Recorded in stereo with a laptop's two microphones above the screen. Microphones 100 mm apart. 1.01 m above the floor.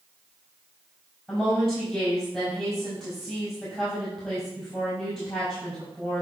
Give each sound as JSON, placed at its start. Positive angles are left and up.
{"t": 1.3, "sound": "a woman speaking", "side_deg": 10, "distance_m": 4.5}